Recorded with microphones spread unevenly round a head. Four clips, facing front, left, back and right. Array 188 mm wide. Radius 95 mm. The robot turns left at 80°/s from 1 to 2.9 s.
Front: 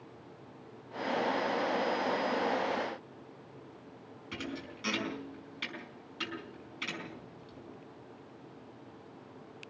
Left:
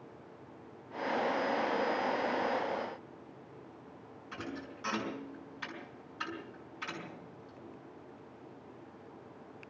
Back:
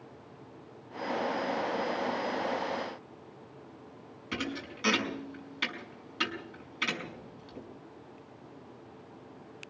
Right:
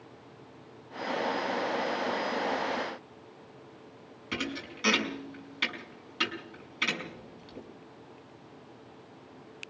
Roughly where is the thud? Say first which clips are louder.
Right 6 dB, back 4 dB; behind right.